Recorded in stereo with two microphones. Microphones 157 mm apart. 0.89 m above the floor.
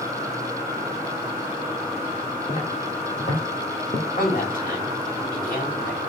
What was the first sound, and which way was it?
Footsteps, 50° left (ahead or behind).